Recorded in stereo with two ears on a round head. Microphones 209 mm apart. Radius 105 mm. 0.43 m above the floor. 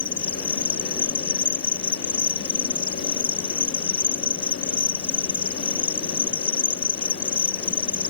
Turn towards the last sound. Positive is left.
turn(degrees=20)  # may be behind; listen again after turning